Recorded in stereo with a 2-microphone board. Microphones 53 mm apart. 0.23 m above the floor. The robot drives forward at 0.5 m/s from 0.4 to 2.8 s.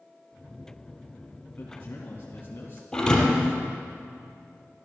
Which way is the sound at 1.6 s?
35° left (ahead or behind).